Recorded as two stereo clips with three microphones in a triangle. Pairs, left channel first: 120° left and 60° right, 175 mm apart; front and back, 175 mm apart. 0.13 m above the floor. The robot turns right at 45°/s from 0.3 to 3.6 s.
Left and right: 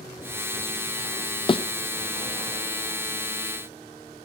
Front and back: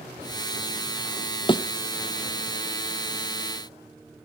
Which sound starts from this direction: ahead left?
A thud, at 1.5 s.